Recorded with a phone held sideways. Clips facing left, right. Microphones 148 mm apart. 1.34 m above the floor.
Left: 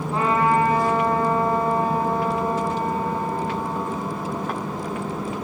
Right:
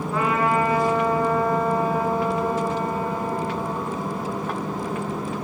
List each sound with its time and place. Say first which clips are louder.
0.1 s a trumpet: left 2 dB; 30° left (ahead or behind), 6 m